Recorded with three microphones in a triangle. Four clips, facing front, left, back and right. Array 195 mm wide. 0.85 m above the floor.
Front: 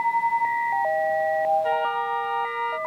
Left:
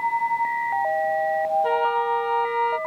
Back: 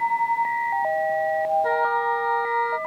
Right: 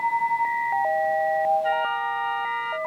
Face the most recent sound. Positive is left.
turn(degrees=125)